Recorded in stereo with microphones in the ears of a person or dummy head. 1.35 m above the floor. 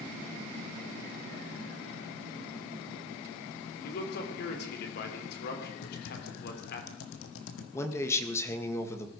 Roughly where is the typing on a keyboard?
Left.